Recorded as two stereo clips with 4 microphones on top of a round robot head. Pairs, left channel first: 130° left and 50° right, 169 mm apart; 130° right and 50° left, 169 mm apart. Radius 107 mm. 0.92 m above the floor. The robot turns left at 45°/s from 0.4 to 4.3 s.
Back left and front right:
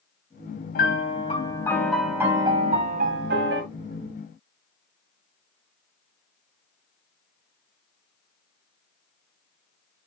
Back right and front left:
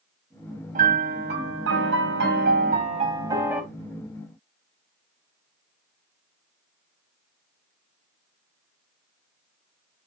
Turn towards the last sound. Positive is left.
turn(degrees=-65)